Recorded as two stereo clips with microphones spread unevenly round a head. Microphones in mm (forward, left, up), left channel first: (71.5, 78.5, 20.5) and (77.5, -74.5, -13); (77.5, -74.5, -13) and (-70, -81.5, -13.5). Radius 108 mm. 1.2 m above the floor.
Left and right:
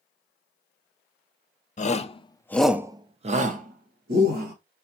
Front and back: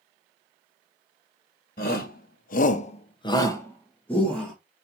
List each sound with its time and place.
1.8 s a shout: 50° left, 1.2 m; by 4.5 s 80° right, 2 m